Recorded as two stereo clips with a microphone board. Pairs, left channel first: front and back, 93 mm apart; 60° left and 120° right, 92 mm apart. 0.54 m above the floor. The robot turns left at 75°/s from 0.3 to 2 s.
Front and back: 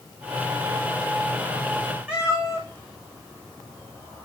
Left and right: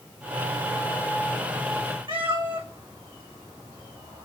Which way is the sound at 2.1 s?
100° right.